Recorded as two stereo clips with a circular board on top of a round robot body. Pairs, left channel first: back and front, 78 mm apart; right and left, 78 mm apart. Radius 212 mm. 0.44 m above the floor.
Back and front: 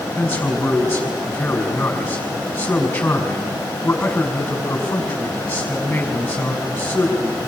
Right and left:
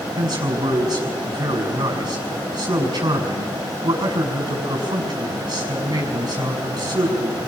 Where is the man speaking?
110° left, 6 m.